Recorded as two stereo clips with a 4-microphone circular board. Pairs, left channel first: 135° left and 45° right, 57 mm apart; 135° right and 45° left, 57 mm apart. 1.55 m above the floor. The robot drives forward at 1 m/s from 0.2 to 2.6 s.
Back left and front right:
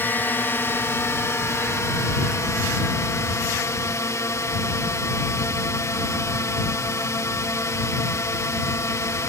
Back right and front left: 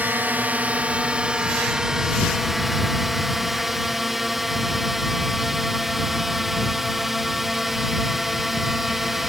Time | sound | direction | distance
0.0 | a drone | 95° left | ?